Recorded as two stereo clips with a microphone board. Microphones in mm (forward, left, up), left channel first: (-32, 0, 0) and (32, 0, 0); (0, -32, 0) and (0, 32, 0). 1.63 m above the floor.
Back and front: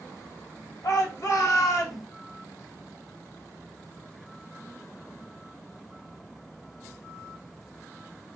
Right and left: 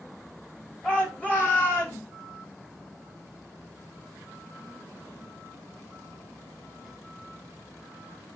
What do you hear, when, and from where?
0.8 s a shout: 160° right, 1.9 m; by 2.0 s 135° right, 1.8 m